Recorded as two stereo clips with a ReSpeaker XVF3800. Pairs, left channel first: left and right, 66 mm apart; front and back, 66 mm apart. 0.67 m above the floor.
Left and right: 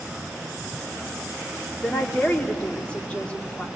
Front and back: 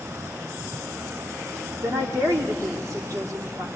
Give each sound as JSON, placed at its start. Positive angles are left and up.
{"t": 1.8, "sound": "a woman speaking", "azimuth_deg": 160, "distance_m": 2.0}